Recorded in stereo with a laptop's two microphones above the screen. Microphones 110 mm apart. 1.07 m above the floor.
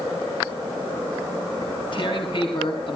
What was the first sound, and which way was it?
Tearing paper, 50° left (ahead or behind).